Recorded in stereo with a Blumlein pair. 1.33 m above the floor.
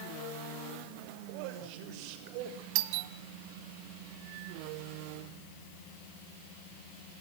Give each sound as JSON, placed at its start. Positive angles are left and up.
{"t": 1.3, "sound": "a man speaking", "azimuth_deg": -45, "distance_m": 6.0}
{"t": 2.8, "sound": "a doorbell", "azimuth_deg": -45, "distance_m": 1.8}